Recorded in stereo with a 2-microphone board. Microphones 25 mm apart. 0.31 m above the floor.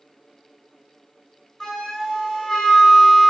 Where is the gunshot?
No gunshot in this recording.